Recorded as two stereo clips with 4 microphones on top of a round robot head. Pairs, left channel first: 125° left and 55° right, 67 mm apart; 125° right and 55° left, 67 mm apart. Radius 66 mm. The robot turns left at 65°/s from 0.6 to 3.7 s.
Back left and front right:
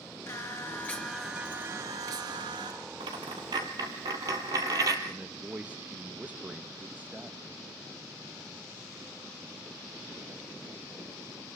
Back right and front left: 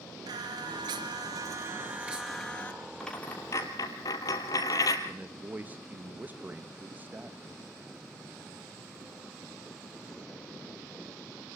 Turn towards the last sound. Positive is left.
turn(degrees=5)